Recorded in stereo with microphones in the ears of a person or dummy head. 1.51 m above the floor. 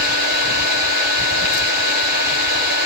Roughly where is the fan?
Right.